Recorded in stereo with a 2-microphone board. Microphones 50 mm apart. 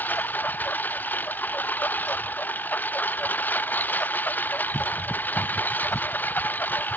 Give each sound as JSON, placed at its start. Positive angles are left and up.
{"t": 0.0, "sound": "a lawn mower", "side_deg": 35}